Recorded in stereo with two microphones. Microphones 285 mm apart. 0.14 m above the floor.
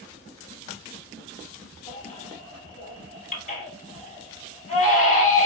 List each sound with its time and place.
1.9 s a baby crying: 30° left (ahead or behind), 1.7 m